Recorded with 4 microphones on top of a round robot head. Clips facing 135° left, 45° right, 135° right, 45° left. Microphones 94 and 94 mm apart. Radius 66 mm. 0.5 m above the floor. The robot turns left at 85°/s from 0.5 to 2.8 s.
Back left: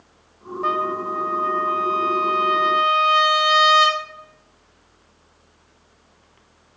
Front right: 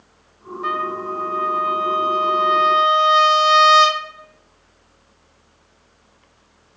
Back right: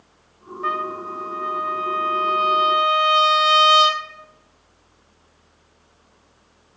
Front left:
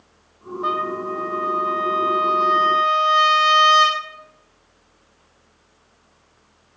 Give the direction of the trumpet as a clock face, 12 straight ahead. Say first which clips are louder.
Back left 1 dB, front left 2 dB; 9 o'clock.